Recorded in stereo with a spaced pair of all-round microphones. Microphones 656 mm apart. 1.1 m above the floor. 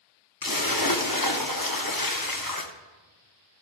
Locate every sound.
0.4 s a splash: 35° left (ahead or behind), 0.8 m